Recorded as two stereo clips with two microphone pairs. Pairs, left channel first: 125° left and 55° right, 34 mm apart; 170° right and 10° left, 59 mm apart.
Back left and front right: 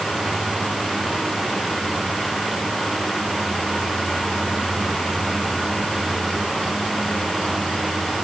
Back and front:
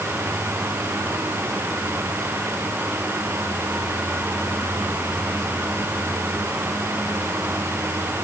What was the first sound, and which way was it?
Only background noise.